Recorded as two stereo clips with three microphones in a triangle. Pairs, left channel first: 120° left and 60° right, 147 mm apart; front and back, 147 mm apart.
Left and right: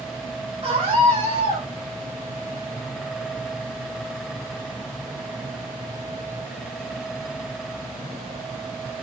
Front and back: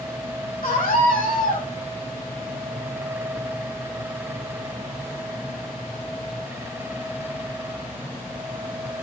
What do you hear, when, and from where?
0.6 s a scream: 15° right, 5.5 m